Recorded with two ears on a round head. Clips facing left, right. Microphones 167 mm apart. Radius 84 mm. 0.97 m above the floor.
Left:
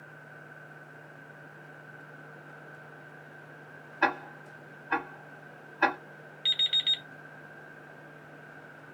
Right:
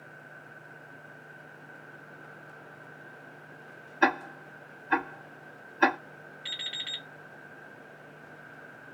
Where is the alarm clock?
45° left (ahead or behind), 1.3 m.